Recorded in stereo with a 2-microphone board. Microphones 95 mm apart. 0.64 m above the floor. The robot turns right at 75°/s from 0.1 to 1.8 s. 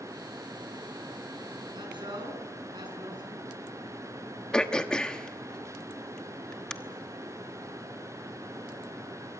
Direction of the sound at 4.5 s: 10° left (ahead or behind).